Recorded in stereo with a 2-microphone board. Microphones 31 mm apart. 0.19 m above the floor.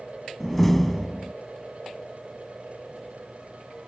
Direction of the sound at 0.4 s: 5° left (ahead or behind).